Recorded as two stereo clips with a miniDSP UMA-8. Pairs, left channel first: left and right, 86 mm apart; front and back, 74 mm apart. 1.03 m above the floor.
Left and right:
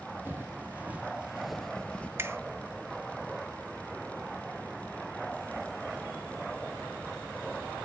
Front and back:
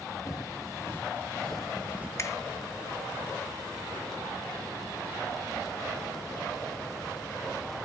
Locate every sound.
0.2 s footsteps: 30° right, 1.7 m; by 2.1 s 145° left, 1.1 m
2.2 s a finger snap: 35° right, 0.8 m